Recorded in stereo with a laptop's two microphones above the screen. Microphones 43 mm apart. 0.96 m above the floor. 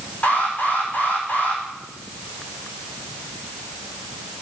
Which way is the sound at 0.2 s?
35° left (ahead or behind).